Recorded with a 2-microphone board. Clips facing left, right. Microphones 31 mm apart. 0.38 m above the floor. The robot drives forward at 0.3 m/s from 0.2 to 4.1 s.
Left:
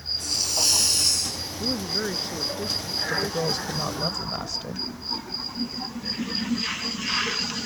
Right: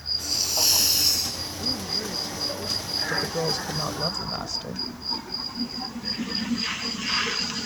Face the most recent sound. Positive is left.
turn(degrees=0)  # may be behind; listen again after turning